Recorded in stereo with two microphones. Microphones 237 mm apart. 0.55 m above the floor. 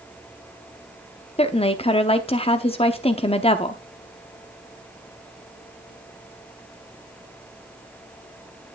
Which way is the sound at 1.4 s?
25° left (ahead or behind).